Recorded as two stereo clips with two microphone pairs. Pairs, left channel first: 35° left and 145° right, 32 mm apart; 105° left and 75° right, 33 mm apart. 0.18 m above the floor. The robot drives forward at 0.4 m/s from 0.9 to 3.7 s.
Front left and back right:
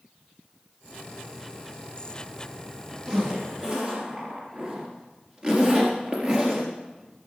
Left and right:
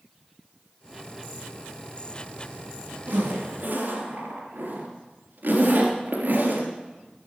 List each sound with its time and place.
3.1 s a zipper: 85° right, 3 m; by 6.7 s 90° right, 3 m